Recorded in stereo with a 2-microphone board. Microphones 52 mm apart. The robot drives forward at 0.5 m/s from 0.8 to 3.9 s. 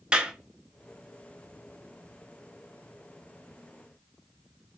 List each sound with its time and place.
0.1 s a clap: 20° right (ahead or behind), 1.3 m